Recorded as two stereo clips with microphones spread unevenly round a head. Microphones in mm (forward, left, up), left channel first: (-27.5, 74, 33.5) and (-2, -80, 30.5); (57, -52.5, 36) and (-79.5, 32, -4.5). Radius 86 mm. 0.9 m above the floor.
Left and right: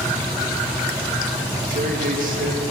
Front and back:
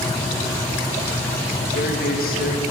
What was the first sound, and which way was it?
A man speaking, 65° right.